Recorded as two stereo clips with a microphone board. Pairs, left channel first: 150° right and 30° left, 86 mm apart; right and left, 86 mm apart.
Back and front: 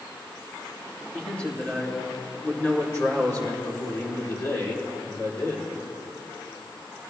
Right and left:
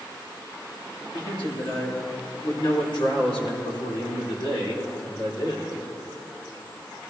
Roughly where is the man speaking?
Right.